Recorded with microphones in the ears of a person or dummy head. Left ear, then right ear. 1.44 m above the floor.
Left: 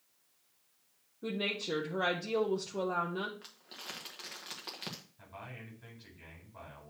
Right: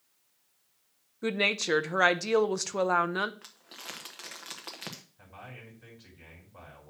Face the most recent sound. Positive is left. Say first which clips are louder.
# right 1 dB
turn(degrees=-10)  # may be behind; listen again after turning